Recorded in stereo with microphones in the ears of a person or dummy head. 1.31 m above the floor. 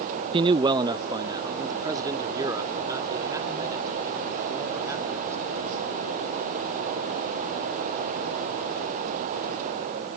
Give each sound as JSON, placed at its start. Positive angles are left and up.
{"t": 0.3, "sound": "a man speaking", "side_deg": -20}